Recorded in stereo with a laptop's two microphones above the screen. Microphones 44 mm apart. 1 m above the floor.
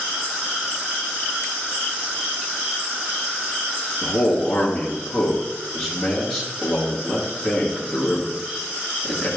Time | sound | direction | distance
4.0 | a man speaking | centre (ahead or behind) | 1.6 m